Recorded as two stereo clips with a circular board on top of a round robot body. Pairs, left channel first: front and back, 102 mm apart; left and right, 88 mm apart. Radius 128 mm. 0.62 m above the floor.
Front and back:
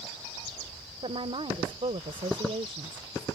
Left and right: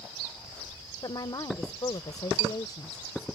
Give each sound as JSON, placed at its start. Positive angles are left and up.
{"t": 1.0, "sound": "a woman speaking", "azimuth_deg": 140}